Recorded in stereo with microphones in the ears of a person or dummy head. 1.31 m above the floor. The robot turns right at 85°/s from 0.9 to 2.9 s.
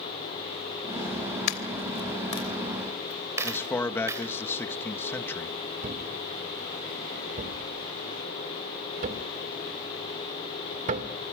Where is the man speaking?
15° left (ahead or behind), 1.6 m.